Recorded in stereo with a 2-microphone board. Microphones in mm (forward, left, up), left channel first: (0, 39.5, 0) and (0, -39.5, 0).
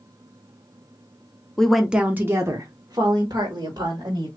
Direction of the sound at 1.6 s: 10° left (ahead or behind).